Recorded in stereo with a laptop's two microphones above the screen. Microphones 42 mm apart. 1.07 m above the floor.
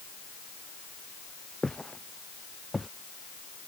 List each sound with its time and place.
1.6 s footsteps: 15° left (ahead or behind); by 2.9 s centre (ahead or behind)